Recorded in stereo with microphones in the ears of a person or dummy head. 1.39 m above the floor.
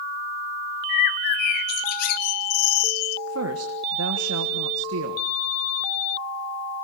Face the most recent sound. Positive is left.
turn(degrees=-75)  # may be behind; listen again after turning